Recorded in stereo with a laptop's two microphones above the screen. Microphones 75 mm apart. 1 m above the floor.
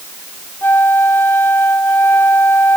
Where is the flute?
30° left (ahead or behind).